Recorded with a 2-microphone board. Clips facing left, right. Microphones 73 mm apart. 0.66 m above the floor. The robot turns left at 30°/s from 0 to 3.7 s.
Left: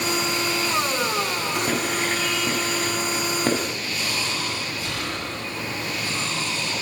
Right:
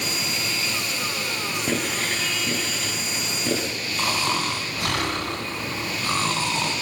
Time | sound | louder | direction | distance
1.7 | writing | left 2 dB | 5° left (ahead or behind) | 6 m
4.0 | snoring | right 6 dB | 75° right (ahead or behind) | 4.5 m